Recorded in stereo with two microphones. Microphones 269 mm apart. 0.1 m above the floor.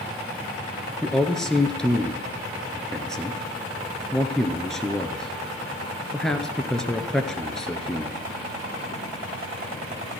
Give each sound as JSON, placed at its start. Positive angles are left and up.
{"t": 1.0, "sound": "a man speaking", "side_deg": 0, "distance_m": 1.2}